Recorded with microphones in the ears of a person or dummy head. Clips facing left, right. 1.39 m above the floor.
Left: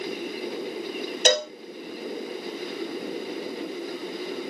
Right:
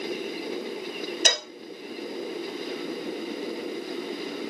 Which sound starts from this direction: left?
A cowbell, at 1.2 s.